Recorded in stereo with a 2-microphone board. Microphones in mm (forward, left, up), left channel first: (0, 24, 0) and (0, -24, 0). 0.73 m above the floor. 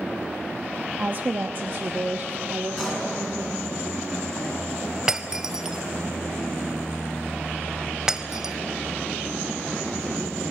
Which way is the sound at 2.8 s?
5° left (ahead or behind).